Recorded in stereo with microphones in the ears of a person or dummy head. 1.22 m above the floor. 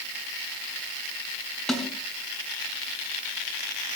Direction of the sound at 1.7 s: 5° left (ahead or behind).